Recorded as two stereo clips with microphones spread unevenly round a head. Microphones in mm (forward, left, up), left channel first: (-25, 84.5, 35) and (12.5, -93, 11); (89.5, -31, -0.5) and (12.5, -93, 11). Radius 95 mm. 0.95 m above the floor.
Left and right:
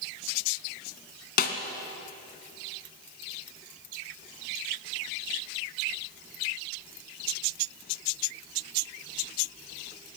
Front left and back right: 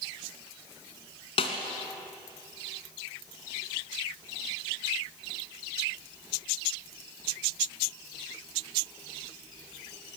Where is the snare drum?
75° left, 1.5 m.